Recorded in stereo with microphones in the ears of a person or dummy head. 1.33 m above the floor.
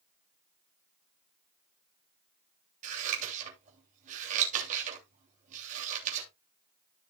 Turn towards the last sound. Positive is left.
turn(degrees=-45)  # may be behind; listen again after turning